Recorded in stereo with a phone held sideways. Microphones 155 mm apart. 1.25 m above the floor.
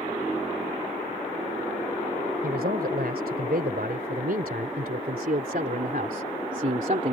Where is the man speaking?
90° right; by 7.1 s 55° right (ahead or behind).